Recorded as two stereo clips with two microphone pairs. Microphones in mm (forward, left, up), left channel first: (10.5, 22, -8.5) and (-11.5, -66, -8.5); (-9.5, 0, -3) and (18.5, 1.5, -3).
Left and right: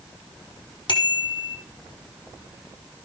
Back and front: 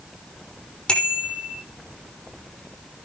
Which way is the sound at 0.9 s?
115° left.